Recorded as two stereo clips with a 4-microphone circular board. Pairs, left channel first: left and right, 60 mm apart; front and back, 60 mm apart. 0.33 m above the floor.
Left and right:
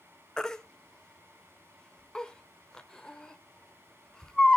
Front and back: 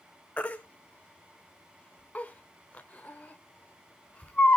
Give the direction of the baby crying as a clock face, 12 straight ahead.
11 o'clock.